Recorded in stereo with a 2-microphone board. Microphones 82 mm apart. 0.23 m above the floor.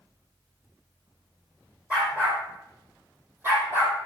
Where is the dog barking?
20° right (ahead or behind), 6 m; by 4.1 s 35° right (ahead or behind), 4 m.